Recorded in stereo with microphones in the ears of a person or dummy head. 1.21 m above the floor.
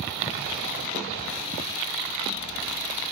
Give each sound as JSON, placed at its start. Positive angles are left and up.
{"t": 0.3, "sound": "ticking", "side_deg": 5, "distance_m": 7.5}